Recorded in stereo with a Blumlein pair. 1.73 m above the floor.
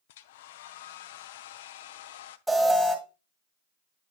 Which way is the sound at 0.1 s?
55° left.